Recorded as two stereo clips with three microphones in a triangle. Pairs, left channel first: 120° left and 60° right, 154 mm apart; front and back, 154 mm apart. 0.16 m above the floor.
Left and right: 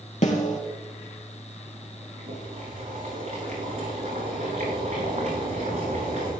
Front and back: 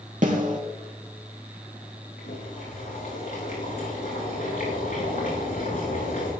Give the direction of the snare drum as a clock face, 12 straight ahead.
7 o'clock.